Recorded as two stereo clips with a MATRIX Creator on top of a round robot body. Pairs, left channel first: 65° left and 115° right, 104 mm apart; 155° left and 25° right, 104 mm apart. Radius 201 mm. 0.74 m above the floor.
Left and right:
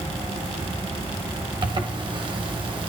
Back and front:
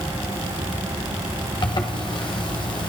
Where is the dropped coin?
I don't hear a dropped coin.